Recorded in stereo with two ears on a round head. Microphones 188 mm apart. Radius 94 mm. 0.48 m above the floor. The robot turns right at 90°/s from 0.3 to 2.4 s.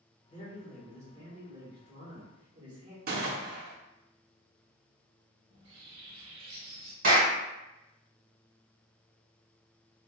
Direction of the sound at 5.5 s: 25° right (ahead or behind).